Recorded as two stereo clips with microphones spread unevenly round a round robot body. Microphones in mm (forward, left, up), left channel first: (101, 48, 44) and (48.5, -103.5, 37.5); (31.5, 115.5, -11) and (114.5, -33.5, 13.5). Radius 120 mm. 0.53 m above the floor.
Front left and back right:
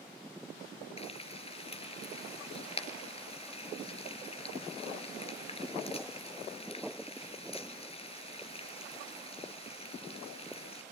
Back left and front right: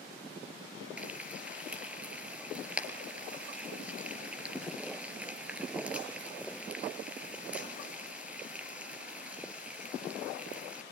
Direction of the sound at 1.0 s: 20° left.